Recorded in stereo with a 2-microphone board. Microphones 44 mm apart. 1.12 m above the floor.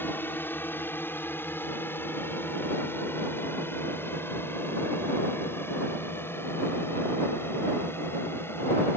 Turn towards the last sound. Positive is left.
turn(degrees=65)  # may be behind; listen again after turning